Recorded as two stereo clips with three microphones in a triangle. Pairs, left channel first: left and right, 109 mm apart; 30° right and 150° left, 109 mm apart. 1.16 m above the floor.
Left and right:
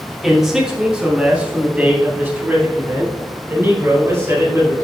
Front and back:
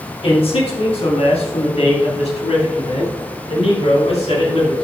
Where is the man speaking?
Straight ahead, 2 m; by 4.8 s 30° right, 4.5 m.